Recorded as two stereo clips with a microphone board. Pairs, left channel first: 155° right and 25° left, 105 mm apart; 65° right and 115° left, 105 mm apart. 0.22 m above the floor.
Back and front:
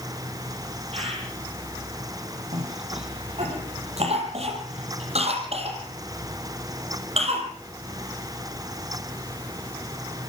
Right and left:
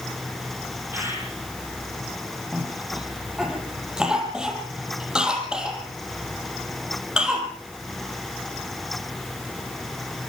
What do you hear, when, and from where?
0.9 s a bird: 45° left, 6.5 m
2.5 s a cough: 30° left, 5.5 m